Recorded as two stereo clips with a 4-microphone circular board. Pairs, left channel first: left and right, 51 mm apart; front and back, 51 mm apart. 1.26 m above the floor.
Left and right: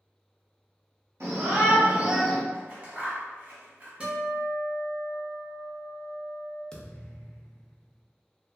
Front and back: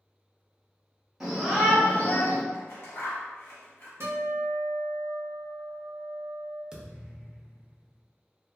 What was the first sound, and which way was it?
A shout, 95° right.